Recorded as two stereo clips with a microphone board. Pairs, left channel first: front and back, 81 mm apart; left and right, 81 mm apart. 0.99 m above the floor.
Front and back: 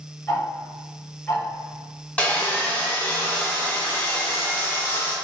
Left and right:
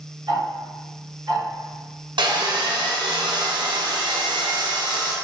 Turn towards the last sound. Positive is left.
turn(degrees=-75)